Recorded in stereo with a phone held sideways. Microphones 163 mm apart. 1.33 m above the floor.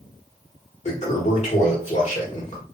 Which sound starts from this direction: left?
A toilet flushing, at 0.8 s.